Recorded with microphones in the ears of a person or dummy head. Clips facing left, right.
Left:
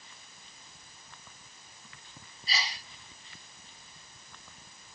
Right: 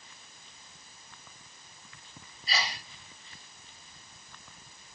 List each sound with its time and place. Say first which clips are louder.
2.5 s a sneeze: right 3 dB; 55° right (ahead or behind)